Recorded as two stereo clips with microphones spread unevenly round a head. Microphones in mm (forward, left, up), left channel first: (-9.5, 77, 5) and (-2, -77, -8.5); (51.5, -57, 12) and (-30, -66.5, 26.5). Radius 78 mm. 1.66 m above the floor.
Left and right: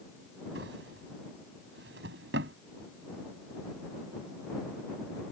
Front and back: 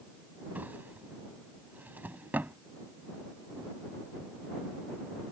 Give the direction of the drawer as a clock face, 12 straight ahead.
4 o'clock.